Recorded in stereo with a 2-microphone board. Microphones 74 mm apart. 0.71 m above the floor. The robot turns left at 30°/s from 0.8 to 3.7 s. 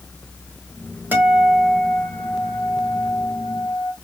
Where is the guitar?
155° right, 2 m; by 3.9 s 125° left, 2 m.